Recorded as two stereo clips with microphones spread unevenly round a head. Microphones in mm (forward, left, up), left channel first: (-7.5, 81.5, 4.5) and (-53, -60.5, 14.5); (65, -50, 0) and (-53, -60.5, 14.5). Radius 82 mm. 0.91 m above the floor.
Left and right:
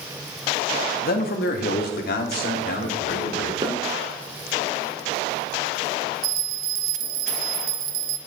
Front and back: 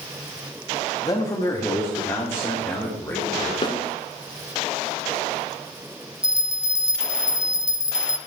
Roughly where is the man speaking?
Ahead left.